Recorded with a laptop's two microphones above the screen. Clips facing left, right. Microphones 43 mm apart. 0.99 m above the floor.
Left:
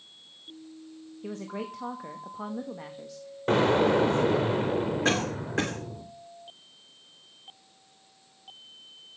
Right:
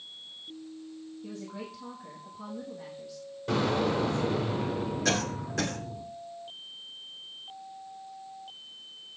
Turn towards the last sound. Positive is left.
turn(degrees=30)  # may be behind; listen again after turning